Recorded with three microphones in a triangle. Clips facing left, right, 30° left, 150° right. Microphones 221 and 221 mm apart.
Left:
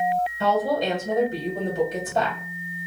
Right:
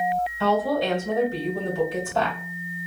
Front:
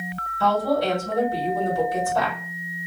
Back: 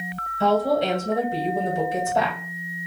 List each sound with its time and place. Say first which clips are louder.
0.4 s a woman speaking: right 1 dB, back 1 dB; 155° left, 1.6 m